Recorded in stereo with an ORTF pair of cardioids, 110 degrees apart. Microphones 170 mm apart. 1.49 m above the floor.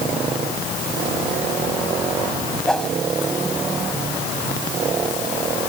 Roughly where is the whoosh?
Ahead.